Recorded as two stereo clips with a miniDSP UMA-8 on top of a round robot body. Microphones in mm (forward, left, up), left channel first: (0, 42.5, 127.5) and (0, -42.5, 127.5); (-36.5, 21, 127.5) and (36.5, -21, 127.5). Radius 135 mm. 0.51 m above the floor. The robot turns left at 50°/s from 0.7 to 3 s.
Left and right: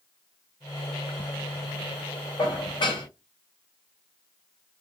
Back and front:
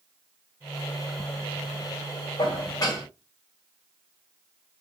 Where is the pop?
I don't hear a pop.